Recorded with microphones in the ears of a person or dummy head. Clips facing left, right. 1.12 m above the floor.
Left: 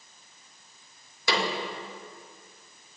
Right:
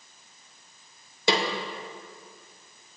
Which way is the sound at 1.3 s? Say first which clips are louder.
Right 3 dB; 25° right (ahead or behind).